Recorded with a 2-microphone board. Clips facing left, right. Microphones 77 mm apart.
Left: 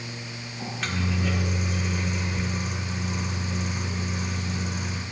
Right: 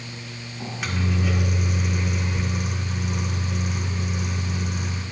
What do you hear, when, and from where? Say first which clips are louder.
0.6 s a microwave: right 1 dB; 10° right (ahead or behind), 0.6 m